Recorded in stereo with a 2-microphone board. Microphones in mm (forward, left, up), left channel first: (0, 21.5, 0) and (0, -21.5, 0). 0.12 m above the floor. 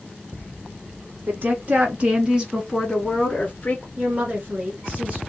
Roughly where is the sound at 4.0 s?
Right.